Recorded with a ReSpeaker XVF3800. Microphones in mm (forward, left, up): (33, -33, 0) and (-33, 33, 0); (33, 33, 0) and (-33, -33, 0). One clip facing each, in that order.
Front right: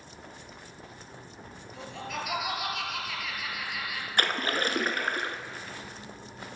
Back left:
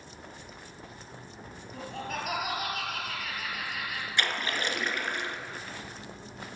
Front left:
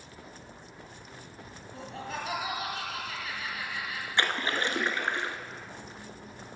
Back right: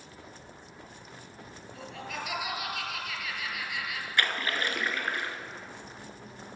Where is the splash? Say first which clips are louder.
Front right 3 dB, front left 1 dB; 15° right, 1.0 m.